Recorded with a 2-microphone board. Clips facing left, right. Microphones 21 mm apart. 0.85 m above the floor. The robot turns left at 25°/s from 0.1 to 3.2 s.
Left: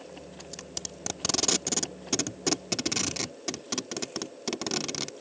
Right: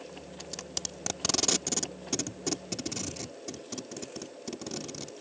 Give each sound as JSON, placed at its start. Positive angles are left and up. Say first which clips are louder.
{"t": 0.4, "sound": "tape being pulled", "louder": "right 2 dB", "side_deg": -20}